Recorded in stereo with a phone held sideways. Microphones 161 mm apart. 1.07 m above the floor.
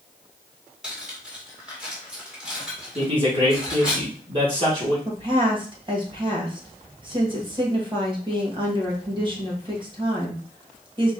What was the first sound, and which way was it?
Cutlery clinking, 5° right (ahead or behind).